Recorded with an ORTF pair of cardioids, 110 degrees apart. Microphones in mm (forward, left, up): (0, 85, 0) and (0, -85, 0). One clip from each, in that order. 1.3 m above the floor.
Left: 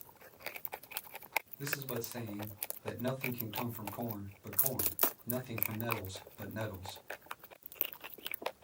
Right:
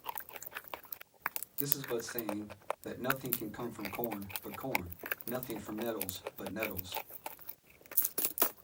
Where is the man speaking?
Straight ahead, 3.5 m.